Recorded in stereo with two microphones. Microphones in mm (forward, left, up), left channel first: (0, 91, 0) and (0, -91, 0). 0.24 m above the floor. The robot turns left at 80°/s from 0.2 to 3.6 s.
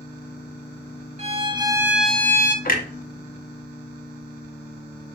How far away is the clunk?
About 0.6 m.